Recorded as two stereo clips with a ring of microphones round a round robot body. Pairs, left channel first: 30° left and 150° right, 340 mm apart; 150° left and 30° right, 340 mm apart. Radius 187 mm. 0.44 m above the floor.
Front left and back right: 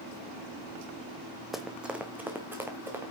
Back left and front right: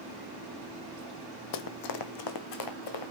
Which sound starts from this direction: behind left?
Running footsteps, at 1.5 s.